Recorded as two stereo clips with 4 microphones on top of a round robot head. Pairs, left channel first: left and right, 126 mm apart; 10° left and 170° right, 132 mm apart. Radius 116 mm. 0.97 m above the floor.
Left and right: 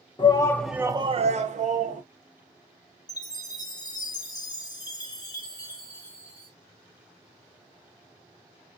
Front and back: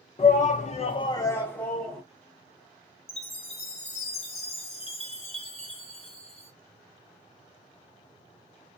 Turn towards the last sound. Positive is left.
turn(degrees=35)